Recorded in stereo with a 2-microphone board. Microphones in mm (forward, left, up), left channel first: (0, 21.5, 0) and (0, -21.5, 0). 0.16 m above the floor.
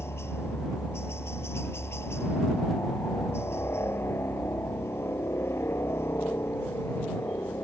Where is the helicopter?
65° left (ahead or behind).